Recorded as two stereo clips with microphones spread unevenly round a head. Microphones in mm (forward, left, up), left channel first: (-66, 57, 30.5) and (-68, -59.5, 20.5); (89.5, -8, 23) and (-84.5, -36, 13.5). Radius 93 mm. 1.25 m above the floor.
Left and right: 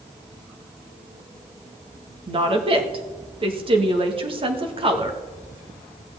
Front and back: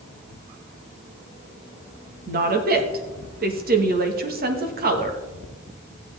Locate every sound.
2.3 s a woman speaking: 135° right, 1.5 m